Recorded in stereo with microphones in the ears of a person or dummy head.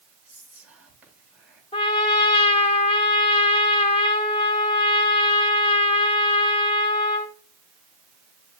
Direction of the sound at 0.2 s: 10° right (ahead or behind).